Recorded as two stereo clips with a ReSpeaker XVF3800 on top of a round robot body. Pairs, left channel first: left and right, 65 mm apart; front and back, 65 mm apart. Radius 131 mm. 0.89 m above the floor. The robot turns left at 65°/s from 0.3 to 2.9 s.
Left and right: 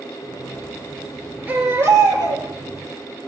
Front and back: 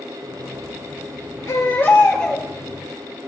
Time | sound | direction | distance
1.5 | a baby crying | 30° right | 2.5 m